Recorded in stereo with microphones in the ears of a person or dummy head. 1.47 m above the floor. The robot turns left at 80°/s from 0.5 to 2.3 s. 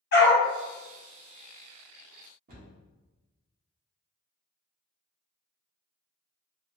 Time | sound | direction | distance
0.1 | a dog barking | 60° left (ahead or behind) | 1.6 m
2.5 | a cupboard door | 60° right (ahead or behind) | 1.1 m